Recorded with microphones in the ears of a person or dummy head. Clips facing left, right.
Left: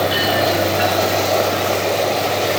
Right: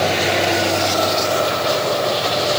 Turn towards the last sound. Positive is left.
No sound to turn to.